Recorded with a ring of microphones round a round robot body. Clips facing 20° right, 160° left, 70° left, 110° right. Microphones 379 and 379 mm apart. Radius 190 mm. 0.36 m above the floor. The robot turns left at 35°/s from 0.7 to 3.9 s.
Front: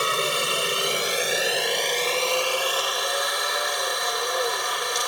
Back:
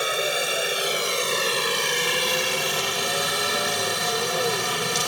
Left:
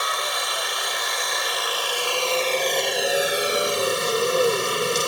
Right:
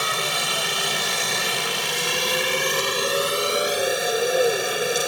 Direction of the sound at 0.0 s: 100° right.